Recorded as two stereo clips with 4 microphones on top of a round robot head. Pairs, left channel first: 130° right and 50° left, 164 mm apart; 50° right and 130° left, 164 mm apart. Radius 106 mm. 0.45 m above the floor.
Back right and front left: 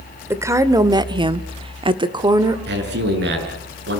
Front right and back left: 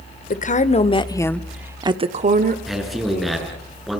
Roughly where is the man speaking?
Ahead left.